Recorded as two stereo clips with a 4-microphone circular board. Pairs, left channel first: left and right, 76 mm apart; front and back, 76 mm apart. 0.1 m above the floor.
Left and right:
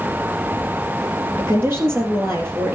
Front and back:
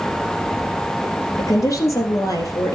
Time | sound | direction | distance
1.4 | a woman speaking | 35° right | 3 m